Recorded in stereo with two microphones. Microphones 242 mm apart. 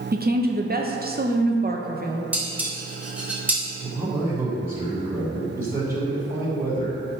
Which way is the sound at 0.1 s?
40° right (ahead or behind).